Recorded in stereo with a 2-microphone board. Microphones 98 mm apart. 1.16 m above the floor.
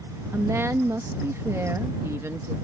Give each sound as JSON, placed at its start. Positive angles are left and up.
{"t": 0.3, "sound": "a woman speaking", "side_deg": -30}